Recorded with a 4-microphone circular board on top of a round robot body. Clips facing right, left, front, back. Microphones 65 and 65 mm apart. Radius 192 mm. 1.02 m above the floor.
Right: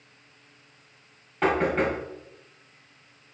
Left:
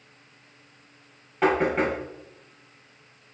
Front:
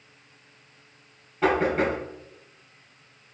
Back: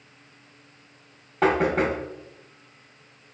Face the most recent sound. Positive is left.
turn(degrees=175)